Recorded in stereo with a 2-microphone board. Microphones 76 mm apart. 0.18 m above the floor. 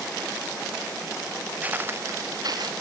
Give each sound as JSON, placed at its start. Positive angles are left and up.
{"t": 1.6, "sound": "footsteps", "side_deg": -20}